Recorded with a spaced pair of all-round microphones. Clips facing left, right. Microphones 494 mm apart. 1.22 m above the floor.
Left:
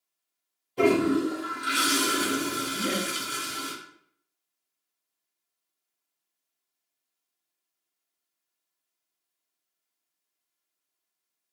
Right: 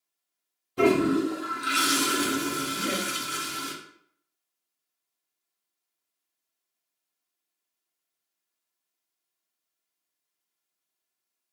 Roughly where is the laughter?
Left.